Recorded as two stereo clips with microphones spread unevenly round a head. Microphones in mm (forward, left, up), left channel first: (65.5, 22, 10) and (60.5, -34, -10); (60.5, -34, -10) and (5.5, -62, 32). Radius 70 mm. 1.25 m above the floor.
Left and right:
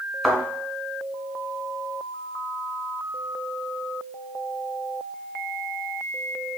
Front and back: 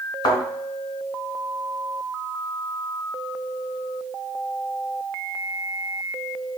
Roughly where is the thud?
Ahead.